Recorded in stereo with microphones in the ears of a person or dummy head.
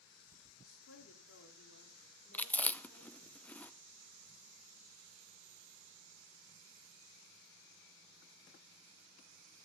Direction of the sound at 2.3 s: 5° left (ahead or behind).